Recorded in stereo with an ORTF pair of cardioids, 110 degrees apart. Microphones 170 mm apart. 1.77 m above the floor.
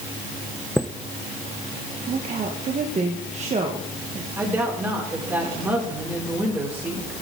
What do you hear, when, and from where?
0.8 s a chime: straight ahead, 0.6 m
2.1 s a woman speaking: 45° right, 1.7 m
4.4 s a woman speaking: 15° right, 6.5 m